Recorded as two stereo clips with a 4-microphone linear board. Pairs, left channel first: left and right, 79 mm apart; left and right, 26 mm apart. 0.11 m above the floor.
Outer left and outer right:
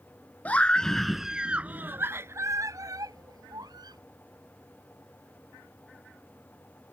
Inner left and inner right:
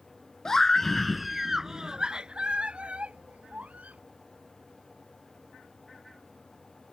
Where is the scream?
20° left (ahead or behind); by 4.0 s 60° right (ahead or behind).